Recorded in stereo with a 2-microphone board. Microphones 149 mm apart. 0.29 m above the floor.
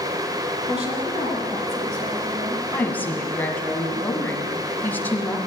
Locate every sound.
0.7 s a woman speaking: 45° right (ahead or behind), 3.5 m
2.7 s a woman speaking: 10° left (ahead or behind), 1.8 m